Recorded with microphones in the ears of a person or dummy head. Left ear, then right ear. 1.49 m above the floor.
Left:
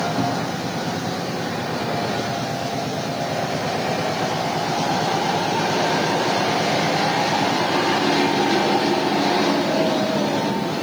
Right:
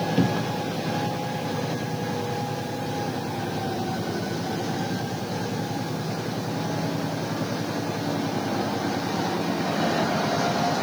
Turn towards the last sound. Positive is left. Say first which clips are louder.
# left 2 dB
turn(degrees=-70)  # may be behind; listen again after turning